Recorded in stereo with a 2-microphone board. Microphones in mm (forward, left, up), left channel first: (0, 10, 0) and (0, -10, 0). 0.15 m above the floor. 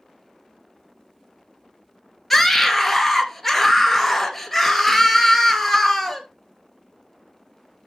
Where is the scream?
5° left (ahead or behind), 2.5 m.